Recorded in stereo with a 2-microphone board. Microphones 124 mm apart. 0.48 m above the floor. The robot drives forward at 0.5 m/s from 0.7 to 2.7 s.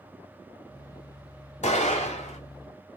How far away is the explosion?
About 2 m.